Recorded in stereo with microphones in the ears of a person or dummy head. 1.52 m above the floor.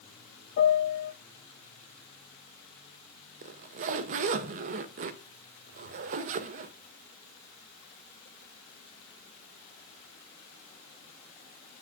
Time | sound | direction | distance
0.6 | a piano | 60° left (ahead or behind) | 1.1 m
3.4 | a zipper | 45° right (ahead or behind) | 0.6 m